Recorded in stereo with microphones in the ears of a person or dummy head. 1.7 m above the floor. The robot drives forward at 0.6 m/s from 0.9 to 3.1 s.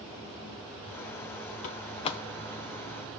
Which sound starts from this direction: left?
A door slam, at 1.6 s.